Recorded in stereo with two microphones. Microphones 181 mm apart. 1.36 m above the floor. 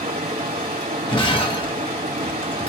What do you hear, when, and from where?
0.0 s running water: 55° right (ahead or behind), 2.0 m
1.1 s breaking glass: 30° left (ahead or behind), 0.9 m